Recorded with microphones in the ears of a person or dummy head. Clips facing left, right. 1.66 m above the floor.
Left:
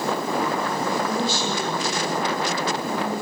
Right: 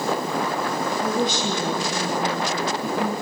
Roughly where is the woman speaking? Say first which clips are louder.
Right 1 dB; centre.